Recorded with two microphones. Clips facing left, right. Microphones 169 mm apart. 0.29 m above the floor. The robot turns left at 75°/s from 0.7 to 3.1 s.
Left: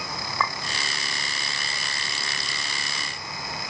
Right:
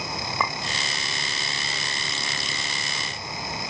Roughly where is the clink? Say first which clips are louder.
Even; centre.